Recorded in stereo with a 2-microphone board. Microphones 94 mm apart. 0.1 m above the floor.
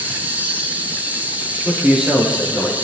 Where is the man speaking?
10° right (ahead or behind), 10 m.